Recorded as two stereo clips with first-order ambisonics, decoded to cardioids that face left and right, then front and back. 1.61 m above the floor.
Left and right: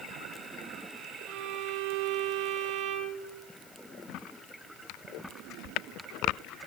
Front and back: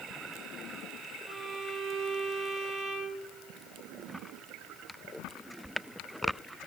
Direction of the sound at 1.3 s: 125° right.